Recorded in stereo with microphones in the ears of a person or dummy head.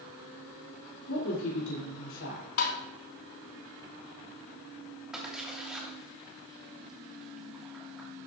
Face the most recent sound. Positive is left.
turn(degrees=0)  # may be behind; listen again after turning